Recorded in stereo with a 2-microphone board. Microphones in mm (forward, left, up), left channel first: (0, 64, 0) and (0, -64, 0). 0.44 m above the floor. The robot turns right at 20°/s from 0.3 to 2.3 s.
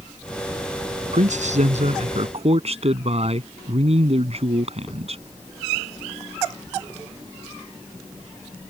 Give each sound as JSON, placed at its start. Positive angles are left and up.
{"t": 1.1, "sound": "a man speaking", "side_deg": -75}